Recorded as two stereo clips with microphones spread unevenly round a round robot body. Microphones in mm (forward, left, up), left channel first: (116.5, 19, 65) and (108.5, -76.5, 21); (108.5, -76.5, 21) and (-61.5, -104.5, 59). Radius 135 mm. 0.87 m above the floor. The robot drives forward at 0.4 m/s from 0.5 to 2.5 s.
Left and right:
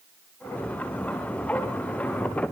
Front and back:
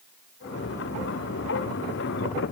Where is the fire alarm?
No fire alarm in this recording.